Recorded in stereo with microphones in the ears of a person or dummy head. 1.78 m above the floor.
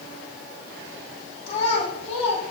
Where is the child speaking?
45° left (ahead or behind), 3.5 m.